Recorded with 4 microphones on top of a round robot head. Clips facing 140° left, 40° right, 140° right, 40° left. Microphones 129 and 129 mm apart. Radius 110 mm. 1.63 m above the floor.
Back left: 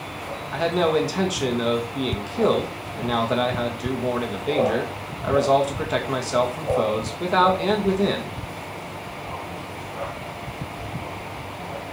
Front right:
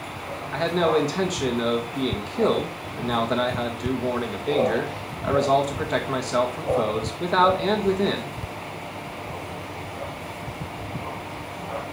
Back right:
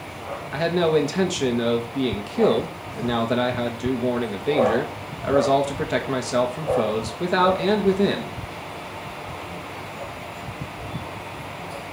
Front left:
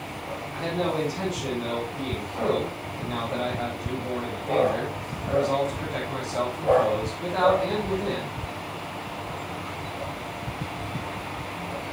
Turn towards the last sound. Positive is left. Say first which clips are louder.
# back left 1 dB, back right 8 dB
turn(degrees=-135)